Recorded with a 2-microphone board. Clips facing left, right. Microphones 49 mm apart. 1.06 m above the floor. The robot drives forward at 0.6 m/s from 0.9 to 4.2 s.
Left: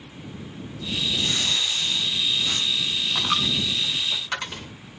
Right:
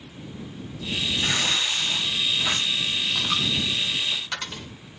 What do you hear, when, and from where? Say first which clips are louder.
1.2 s tearing paper: right 1 dB; 70° right (ahead or behind), 2.5 m; by 3.0 s 50° right (ahead or behind), 3 m
3.1 s a dropped coin: left 4 dB; 25° left (ahead or behind), 0.8 m; by 4.7 s 15° left (ahead or behind), 1.3 m